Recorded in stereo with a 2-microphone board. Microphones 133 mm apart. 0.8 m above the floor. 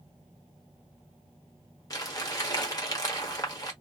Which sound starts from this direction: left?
Crumpling, at 1.9 s.